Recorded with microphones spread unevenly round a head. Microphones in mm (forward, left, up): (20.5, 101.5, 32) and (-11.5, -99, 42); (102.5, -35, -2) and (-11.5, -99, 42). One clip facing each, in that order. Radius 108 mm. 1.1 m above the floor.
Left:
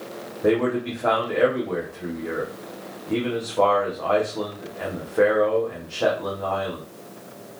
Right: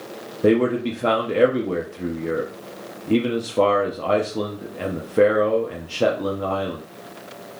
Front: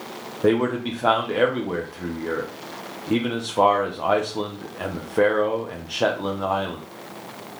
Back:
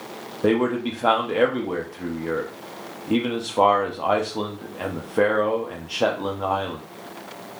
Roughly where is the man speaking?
Ahead right.